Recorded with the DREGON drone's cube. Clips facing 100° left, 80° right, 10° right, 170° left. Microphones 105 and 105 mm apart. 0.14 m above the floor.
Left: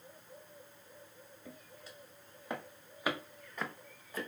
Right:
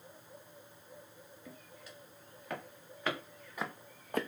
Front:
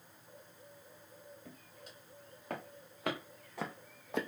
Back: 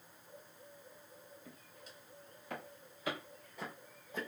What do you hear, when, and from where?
1.4 s footsteps: 35° left, 2.5 m; by 4.3 s 50° right, 0.5 m